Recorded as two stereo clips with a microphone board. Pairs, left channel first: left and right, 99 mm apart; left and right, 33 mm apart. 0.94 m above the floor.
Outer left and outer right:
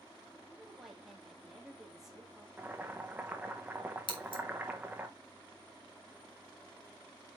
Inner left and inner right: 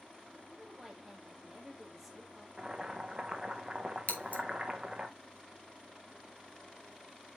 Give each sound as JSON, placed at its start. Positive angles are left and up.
{"t": 0.5, "sound": "a woman speaking", "side_deg": -5, "distance_m": 2.0}
{"t": 2.6, "sound": "boiling", "side_deg": -20, "distance_m": 0.9}
{"t": 4.1, "sound": "scissors", "side_deg": 55, "distance_m": 2.0}